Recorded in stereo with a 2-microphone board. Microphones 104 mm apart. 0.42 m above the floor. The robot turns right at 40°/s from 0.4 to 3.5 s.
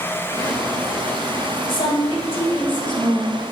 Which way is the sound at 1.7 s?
65° left.